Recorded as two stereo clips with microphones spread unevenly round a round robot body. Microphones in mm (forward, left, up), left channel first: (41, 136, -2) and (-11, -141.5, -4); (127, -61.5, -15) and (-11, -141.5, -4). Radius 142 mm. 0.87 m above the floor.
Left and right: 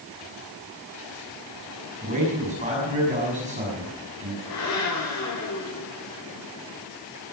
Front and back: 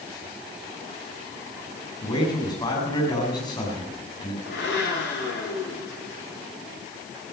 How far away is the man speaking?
About 6 m.